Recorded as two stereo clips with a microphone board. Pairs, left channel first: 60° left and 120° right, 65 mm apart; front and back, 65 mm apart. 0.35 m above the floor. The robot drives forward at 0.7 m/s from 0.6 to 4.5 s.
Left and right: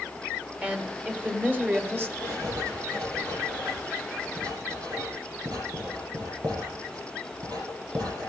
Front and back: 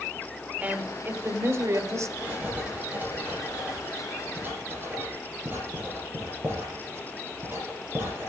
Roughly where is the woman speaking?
Behind.